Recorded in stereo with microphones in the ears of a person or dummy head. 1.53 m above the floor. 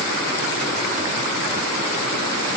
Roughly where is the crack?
I don't hear a crack.